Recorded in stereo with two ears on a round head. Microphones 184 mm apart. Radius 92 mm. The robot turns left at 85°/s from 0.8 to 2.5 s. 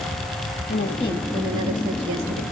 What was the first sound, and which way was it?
A woman speaking, 45° left.